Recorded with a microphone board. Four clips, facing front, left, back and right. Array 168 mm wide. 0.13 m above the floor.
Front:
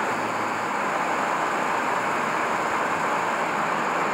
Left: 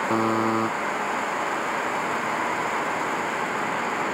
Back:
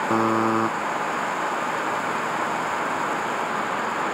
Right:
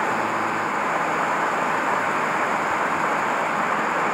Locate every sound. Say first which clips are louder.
0.1 s a buzzer: left 1 dB, back 6 dB; 150° left